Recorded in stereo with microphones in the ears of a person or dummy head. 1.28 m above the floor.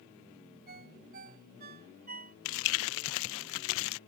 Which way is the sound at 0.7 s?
50° right (ahead or behind).